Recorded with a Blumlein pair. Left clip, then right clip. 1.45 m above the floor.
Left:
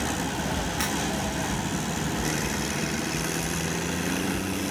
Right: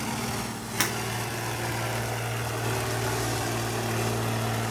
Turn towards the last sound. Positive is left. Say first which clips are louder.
# right 4 dB
turn(degrees=-70)